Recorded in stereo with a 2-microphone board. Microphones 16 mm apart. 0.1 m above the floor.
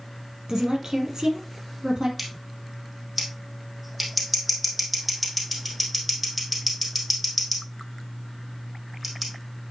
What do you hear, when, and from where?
0.5 s a woman speaking: 55° right (ahead or behind), 3 m
2.2 s scissors: 5° right (ahead or behind), 3 m